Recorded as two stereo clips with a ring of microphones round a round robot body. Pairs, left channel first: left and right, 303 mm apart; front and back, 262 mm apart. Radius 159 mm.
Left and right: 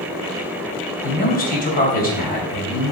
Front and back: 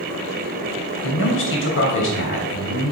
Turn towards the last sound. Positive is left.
turn(degrees=30)